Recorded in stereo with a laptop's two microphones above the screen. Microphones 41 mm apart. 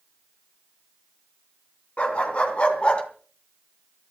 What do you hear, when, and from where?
2.0 s a dog barking: 35° left (ahead or behind), 3.5 m; by 3.0 s 30° left (ahead or behind), 2.5 m